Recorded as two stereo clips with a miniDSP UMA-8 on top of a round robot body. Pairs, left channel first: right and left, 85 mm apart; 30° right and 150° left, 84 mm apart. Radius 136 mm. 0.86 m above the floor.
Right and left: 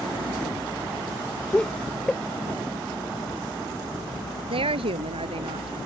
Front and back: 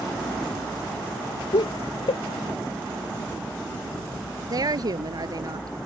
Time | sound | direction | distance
1.5 | laughter | 10° right | ?
4.5 | a woman speaking | 105° left | ?